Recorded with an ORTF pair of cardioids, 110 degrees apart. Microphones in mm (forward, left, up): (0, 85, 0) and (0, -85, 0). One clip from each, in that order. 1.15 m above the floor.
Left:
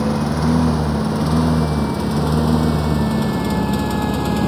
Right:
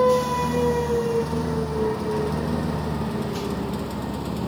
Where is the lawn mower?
60° left; by 4.5 s 55° left.